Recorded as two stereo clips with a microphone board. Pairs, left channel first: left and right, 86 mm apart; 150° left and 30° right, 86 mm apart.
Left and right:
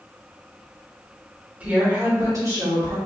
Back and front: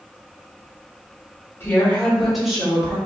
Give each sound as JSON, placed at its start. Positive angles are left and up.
{"t": 1.6, "sound": "a woman speaking", "azimuth_deg": -155, "distance_m": 1.6}